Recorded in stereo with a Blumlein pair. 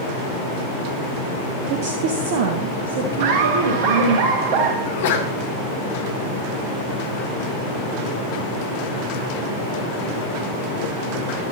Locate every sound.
1.7 s a woman speaking: 45° right, 1.1 m; by 4.2 s 65° right, 3 m
3.2 s laughter: 45° right, 1.5 m
4.8 s a sneeze: 55° left, 3.5 m